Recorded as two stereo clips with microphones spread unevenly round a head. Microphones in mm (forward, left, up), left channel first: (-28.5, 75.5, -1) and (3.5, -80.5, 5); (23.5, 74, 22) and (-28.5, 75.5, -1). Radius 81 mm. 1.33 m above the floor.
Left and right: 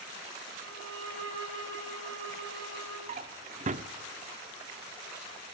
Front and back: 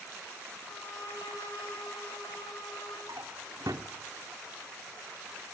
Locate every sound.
0.6 s a violin: 70° right, 9 m
3.1 s a drawer: 110° right, 1.2 m